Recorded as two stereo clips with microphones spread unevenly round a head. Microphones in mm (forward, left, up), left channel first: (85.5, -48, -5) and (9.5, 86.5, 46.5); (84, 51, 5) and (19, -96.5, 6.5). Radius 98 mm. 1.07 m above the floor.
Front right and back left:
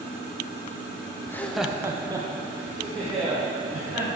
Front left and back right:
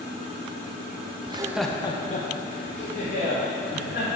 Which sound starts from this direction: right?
Laughter, at 1.3 s.